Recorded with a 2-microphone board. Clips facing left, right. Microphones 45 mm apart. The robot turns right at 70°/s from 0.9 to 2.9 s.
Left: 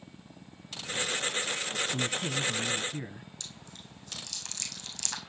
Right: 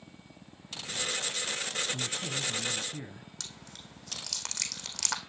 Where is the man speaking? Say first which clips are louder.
Left 4 dB; 25° left (ahead or behind), 1.4 m; by 3.3 s 15° left (ahead or behind), 1.4 m.